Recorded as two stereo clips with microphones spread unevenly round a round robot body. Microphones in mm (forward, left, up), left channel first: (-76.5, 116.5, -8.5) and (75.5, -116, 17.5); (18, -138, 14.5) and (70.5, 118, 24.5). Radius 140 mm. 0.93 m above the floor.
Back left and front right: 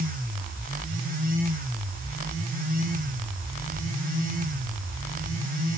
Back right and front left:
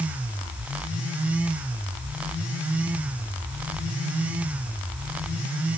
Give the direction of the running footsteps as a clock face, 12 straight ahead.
No running footsteps in this recording.